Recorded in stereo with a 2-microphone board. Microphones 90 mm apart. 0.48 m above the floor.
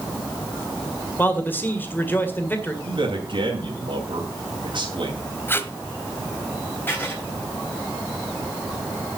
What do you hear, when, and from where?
1.2 s a man speaking: 20° left (ahead or behind), 1.9 m
2.8 s a man speaking: 65° right (ahead or behind), 2.5 m
5.5 s tape being pulled: 25° left (ahead or behind), 1.0 m
6.9 s writing: 25° left (ahead or behind), 3 m